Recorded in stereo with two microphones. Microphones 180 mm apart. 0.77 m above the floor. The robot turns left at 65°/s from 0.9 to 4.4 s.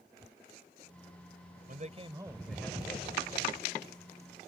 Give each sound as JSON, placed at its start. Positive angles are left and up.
{"t": 1.7, "sound": "a man speaking", "azimuth_deg": -125}